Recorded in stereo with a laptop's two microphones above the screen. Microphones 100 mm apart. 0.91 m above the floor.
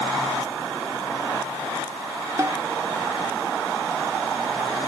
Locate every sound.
2.4 s a snare drum: 35° right (ahead or behind)